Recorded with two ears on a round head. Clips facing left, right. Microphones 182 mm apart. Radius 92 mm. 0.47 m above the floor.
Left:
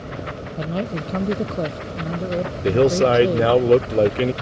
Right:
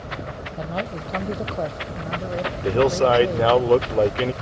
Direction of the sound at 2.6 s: 25° left (ahead or behind).